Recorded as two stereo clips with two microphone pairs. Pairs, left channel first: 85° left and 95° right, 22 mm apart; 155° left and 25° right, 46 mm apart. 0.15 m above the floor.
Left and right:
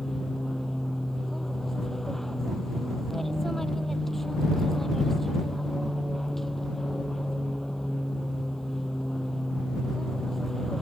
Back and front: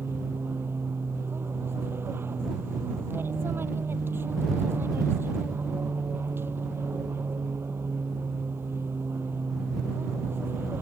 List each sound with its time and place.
0.0 s an aircraft: 5° left